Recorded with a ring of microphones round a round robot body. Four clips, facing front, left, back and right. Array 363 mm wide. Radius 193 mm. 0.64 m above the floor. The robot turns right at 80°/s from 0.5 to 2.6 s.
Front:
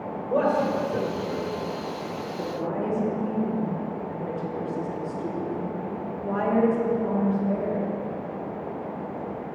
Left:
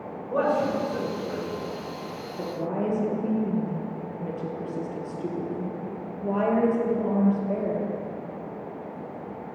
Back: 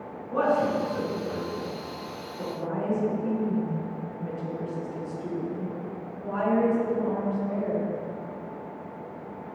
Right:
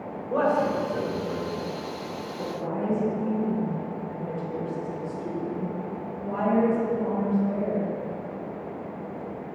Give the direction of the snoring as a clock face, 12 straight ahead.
No snoring in this recording.